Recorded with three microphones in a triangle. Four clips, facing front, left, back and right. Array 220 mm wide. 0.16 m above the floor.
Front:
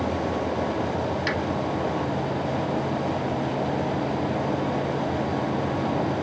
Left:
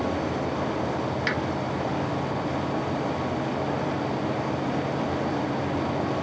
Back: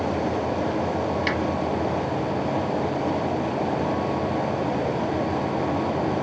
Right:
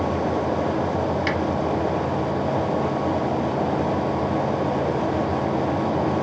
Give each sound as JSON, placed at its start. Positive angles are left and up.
{"t": 1.3, "sound": "a finger snap", "azimuth_deg": 170, "distance_m": 3.0}